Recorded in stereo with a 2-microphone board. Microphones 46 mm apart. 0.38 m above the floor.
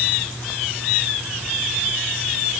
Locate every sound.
Only background noise.